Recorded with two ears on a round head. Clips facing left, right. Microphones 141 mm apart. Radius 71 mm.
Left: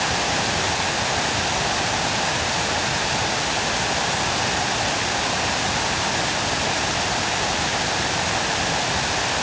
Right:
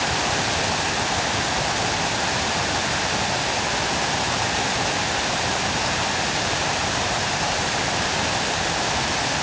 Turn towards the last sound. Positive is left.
No sound to turn to.